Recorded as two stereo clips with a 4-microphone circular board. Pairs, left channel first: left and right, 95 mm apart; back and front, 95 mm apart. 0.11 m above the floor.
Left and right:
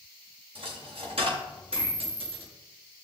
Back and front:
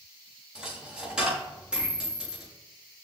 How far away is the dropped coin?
About 4.5 m.